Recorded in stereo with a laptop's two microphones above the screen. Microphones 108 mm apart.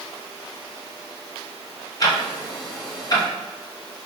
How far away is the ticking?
About 0.7 m.